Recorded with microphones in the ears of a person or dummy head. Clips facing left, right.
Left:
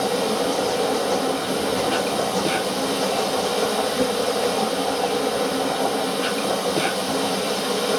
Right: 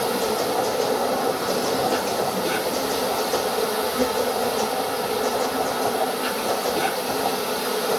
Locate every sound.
0.0 s an insect: 50° left (ahead or behind), 3 m